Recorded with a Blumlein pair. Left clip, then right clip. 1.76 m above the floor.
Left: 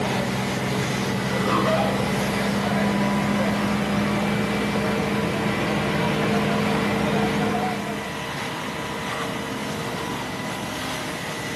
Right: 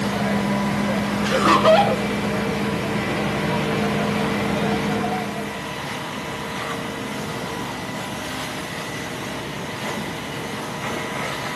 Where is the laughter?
35° right, 2 m.